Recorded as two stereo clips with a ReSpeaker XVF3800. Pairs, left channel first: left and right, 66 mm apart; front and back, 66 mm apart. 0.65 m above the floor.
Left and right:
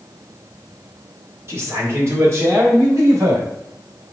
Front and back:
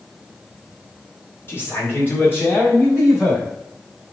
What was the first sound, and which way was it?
A man speaking, 45° right.